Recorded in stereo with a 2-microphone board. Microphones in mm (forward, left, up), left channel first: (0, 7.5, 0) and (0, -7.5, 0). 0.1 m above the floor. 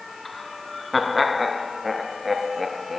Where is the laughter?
10° left (ahead or behind), 1.3 m; by 3.0 s 15° right (ahead or behind), 1.6 m.